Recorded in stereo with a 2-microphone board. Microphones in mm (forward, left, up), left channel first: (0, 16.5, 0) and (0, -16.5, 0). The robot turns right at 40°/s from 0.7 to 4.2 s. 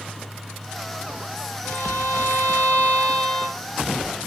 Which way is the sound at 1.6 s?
80° left.